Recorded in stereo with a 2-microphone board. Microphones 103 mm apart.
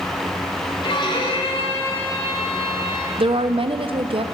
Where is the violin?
55° left (ahead or behind), 1.4 m.